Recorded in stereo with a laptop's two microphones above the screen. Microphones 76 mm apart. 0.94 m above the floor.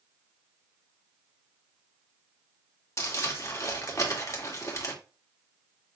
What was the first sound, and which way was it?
Crumpling, 35° left (ahead or behind).